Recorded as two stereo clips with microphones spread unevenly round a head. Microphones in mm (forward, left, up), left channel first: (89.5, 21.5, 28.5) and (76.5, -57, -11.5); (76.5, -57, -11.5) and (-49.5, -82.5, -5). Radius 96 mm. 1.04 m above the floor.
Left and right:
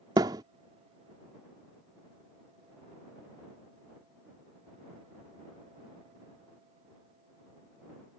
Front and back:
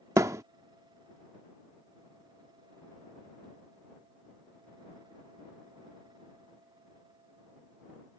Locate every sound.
0.2 s a thud: 160° right